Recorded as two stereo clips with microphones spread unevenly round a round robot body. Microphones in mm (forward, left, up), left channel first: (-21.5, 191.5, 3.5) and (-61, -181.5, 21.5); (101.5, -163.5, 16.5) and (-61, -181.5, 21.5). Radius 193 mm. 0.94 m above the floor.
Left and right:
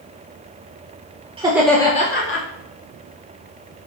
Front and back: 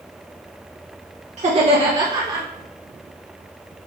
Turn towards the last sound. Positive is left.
turn(degrees=120)